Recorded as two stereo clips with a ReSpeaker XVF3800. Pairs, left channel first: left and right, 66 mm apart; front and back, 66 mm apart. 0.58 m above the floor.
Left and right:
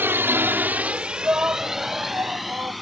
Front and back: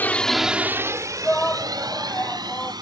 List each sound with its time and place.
0.0 s a drone: 50° right; by 2.8 s straight behind
1.2 s a shout: 55° right